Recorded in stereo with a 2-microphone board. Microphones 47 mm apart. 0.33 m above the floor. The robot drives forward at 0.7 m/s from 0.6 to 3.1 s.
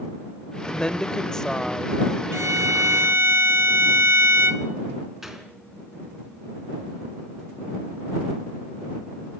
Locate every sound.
0.7 s a woman speaking: 20° left (ahead or behind), 0.8 m; by 2.2 s 10° left (ahead or behind), 1.3 m
2.3 s a violin: 75° right (ahead or behind), 0.8 m; by 4.6 s 60° right (ahead or behind), 0.8 m
5.2 s a gunshot: 10° right (ahead or behind), 3.5 m